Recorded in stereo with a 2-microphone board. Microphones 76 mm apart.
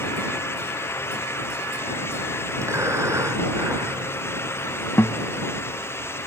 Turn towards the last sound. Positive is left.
turn(degrees=30)  # may be behind; listen again after turning